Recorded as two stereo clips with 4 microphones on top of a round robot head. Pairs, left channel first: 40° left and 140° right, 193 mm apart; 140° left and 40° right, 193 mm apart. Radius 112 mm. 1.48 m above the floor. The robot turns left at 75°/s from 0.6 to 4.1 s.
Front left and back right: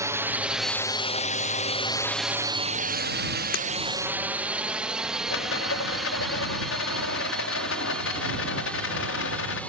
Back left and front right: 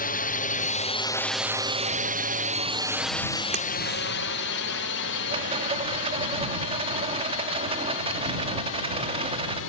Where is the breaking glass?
10° left; by 3.7 s 5° left.